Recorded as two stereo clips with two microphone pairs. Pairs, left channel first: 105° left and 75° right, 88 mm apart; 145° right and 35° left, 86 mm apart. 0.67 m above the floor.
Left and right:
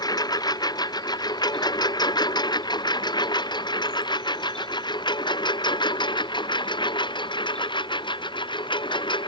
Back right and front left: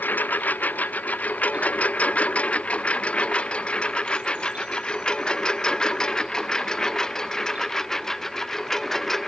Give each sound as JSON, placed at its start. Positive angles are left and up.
{"t": 0.0, "sound": "a lawn mower", "azimuth_deg": 145}